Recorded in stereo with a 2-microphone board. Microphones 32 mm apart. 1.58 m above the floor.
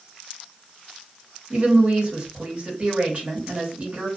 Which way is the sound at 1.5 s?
30° right (ahead or behind).